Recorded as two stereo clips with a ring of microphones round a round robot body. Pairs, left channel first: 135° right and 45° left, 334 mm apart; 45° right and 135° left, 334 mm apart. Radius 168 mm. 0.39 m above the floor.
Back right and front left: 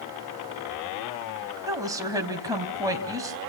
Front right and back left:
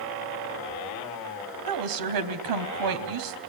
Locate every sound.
1.7 s a woman speaking: 125° left, 3.5 m